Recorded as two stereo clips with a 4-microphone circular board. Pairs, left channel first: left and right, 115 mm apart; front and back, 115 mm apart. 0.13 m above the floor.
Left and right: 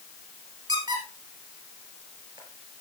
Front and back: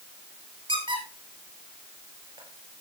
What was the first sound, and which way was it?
A squeak, 140° right.